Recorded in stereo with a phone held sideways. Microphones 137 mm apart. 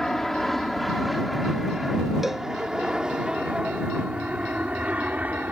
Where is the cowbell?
Centre (ahead or behind).